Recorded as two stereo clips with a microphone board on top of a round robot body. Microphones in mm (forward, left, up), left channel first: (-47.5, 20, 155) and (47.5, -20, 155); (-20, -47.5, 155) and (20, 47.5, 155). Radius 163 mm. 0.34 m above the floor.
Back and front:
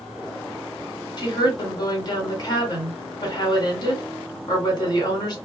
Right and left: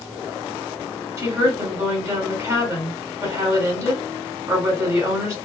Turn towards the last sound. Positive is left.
turn(degrees=120)